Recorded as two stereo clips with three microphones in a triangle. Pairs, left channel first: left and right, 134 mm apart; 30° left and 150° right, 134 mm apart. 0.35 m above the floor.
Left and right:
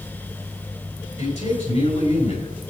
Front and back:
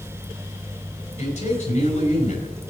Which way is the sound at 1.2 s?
60° left.